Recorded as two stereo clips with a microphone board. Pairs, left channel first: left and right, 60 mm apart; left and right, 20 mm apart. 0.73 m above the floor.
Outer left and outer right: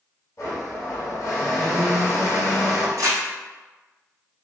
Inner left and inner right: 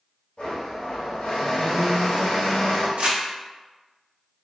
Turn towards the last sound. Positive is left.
turn(degrees=-80)